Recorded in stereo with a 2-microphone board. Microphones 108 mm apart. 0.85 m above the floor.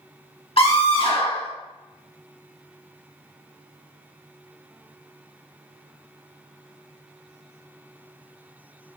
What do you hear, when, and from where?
0.6 s a scream: 60° left (ahead or behind), 2.0 m